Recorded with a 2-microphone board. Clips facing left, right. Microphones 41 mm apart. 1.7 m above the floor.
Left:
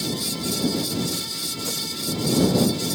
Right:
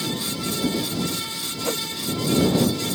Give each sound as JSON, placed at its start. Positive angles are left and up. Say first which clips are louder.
{"t": 1.6, "sound": "a whoosh", "louder": "right 6 dB", "side_deg": -40}